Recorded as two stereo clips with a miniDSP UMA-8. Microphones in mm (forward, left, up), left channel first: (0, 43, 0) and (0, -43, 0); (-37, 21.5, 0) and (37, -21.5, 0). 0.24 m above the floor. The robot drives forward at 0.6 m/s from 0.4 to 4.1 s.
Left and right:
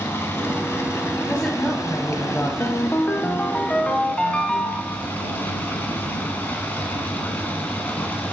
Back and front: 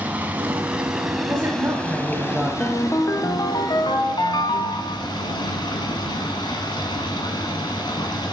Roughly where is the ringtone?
Left.